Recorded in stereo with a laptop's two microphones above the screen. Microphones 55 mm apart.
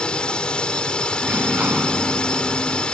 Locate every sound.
0.0 s a drone: 20° left (ahead or behind)
1.2 s a sliding door: 30° right (ahead or behind)